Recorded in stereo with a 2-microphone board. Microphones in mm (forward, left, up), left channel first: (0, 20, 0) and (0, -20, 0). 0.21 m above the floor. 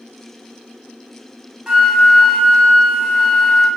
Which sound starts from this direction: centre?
A flute, at 1.7 s.